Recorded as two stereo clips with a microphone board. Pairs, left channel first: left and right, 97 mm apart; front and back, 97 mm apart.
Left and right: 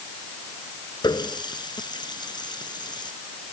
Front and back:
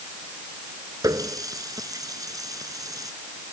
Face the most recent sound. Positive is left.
turn(degrees=130)